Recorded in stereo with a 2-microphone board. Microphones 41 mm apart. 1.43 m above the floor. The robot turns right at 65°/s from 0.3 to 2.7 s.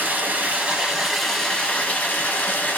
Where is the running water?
55° right, 0.9 m; by 2.8 s 105° left, 0.9 m.